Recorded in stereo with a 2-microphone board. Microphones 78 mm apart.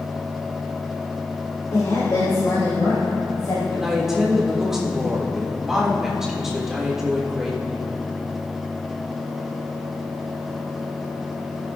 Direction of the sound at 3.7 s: 5° right (ahead or behind).